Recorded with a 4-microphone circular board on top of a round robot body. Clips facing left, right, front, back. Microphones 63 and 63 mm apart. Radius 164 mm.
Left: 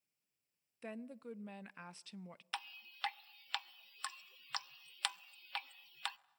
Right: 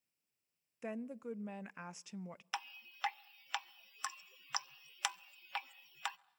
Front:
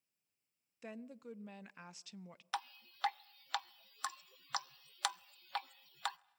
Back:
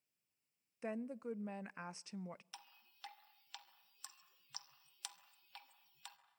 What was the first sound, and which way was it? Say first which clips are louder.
A woman speaking: right 4 dB, back 6 dB; 150° right.